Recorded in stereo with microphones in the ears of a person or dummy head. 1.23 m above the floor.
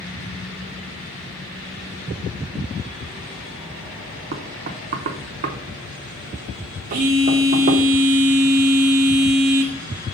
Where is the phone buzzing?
40° right (ahead or behind), 1.0 m.